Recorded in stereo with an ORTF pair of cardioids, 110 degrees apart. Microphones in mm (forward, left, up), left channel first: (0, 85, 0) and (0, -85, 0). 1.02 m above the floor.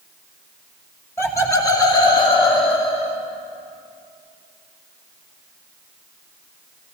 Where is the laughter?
15° left, 2 m; by 3.2 s 40° left, 2.5 m.